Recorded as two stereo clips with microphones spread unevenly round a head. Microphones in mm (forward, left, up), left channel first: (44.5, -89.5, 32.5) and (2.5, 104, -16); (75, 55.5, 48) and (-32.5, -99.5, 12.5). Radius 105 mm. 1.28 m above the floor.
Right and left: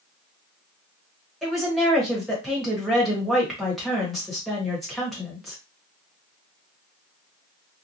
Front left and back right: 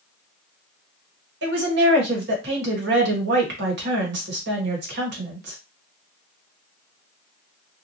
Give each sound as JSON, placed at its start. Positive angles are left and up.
{"t": 1.4, "sound": "a woman speaking", "azimuth_deg": -165, "distance_m": 1.2}